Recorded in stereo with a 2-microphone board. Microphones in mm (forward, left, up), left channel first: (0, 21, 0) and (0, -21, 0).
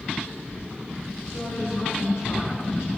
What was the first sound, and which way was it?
A woman speaking, 75° left (ahead or behind).